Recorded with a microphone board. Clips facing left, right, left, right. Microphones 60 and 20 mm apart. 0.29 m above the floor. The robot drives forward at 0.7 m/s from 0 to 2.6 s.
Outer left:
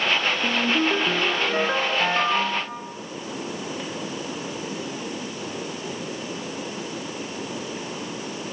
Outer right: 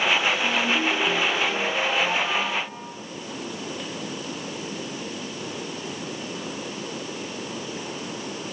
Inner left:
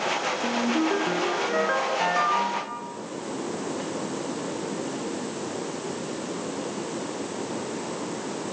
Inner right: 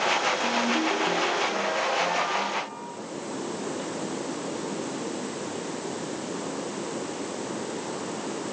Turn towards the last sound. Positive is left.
turn(degrees=70)  # may be behind; listen again after turning